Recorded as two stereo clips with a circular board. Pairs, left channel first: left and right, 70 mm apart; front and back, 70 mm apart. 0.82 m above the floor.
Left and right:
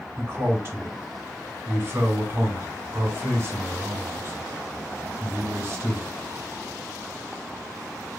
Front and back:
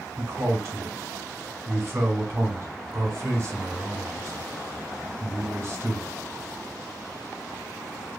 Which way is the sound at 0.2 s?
135° right.